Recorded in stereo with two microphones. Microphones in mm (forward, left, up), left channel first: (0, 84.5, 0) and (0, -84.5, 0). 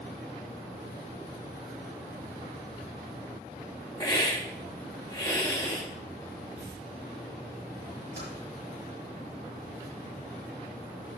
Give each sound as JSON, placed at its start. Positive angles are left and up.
{"t": 4.0, "sound": "a hiss", "side_deg": 20, "distance_m": 1.4}
{"t": 6.6, "sound": "tearing paper", "side_deg": 80, "distance_m": 5.0}
{"t": 8.2, "sound": "typing on a keyboard", "side_deg": 80, "distance_m": 5.5}